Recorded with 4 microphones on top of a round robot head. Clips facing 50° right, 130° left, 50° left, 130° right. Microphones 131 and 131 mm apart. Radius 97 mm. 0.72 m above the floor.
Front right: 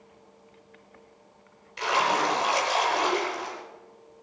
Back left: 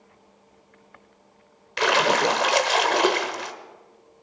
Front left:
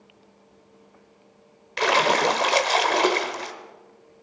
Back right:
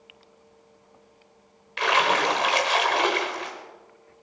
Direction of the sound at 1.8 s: 105° left.